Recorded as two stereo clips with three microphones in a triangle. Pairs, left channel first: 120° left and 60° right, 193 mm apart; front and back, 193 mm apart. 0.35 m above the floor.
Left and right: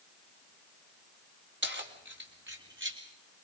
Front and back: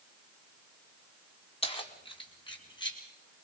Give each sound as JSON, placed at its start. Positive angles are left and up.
{"t": 1.6, "sound": "keys jangling", "azimuth_deg": -60, "distance_m": 1.7}